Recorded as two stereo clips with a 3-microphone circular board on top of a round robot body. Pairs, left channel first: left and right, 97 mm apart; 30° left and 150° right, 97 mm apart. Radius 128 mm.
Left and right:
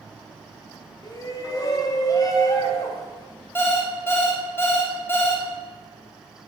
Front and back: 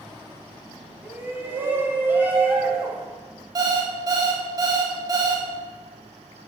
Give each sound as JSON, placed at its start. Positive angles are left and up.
{"t": 1.0, "sound": "a shout", "azimuth_deg": 140, "distance_m": 1.8}
{"t": 3.5, "sound": "an alarm clock", "azimuth_deg": 160, "distance_m": 1.5}